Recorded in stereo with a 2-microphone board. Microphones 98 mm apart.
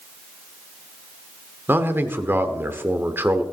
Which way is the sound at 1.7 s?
20° right (ahead or behind).